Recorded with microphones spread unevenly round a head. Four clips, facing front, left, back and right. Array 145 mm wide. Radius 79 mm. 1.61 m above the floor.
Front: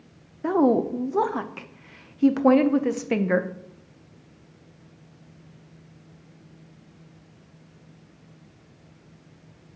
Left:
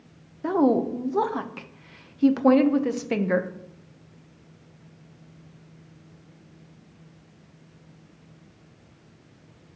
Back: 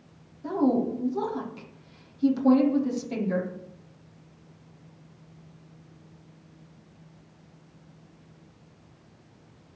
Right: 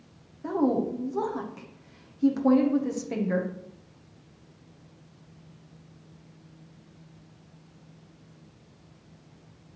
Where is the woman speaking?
35° left, 0.8 m.